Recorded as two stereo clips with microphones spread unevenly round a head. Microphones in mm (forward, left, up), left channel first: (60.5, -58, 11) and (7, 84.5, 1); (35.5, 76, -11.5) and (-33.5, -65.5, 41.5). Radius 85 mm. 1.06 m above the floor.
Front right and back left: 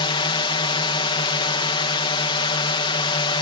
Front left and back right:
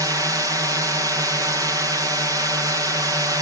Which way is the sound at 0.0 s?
35° right.